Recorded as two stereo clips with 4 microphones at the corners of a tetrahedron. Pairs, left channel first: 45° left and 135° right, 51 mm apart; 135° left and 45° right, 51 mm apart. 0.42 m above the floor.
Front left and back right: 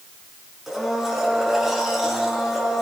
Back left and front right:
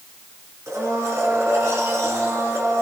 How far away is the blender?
About 4 m.